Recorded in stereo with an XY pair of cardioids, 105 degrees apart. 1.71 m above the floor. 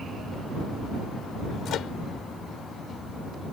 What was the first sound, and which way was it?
A microwave, 70° left.